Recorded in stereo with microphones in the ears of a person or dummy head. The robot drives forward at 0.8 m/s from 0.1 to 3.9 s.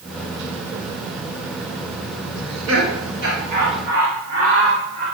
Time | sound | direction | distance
2.4 | laughter | 75° right (ahead or behind) | 1.5 m